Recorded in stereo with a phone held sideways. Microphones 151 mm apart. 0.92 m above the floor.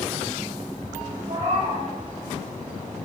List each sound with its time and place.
1.3 s a cat meowing: 55° right (ahead or behind), 0.9 m